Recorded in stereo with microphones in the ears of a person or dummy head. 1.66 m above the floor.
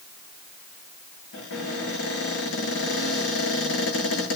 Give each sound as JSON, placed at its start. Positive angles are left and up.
{"t": 1.3, "sound": "a cupboard door", "side_deg": 80, "distance_m": 10.0}